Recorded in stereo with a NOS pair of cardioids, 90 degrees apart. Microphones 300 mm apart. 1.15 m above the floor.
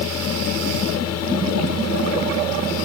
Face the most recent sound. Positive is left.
turn(degrees=60)